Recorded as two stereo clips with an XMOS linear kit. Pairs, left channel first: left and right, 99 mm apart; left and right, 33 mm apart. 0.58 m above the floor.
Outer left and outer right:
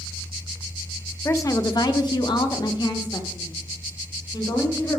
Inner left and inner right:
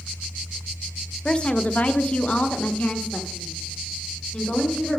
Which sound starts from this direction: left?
A woman speaking, at 1.2 s.